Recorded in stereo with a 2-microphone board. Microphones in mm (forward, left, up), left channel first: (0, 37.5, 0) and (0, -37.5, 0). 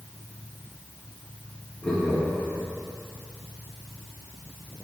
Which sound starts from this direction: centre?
Laughter, at 1.8 s.